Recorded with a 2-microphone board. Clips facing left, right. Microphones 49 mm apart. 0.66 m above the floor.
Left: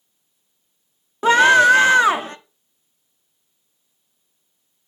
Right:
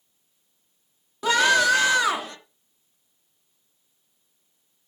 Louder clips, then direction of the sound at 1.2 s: Left 7 dB; 35° left (ahead or behind).